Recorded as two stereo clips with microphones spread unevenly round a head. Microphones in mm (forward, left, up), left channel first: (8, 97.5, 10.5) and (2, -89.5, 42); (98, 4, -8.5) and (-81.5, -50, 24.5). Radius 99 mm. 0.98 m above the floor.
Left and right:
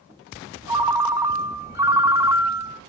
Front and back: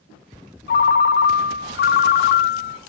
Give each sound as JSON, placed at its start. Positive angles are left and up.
{"t": 0.7, "sound": "a ringtone", "azimuth_deg": -15, "distance_m": 0.7}